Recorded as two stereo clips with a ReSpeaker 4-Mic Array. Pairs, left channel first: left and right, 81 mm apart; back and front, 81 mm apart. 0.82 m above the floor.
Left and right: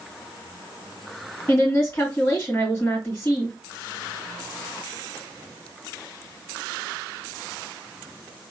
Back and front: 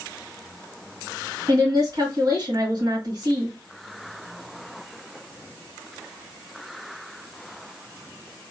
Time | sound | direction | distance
1.5 | a woman speaking | 25° left | 1.6 m